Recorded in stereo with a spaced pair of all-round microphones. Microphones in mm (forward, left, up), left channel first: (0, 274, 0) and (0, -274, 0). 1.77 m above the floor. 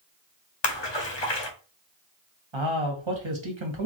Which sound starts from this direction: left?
A splash, at 0.6 s.